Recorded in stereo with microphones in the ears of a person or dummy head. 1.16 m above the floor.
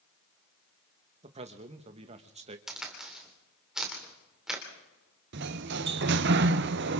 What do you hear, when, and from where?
1.2 s a man speaking: 30° right (ahead or behind), 1.4 m
2.7 s a crack: centre (ahead or behind), 3 m
5.3 s a sliding door: 55° right (ahead or behind), 0.8 m